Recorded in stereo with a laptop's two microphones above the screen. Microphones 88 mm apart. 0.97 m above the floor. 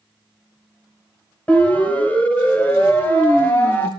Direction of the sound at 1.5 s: 15° left (ahead or behind).